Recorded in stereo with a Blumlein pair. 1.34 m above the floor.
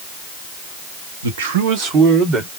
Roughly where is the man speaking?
Ahead right.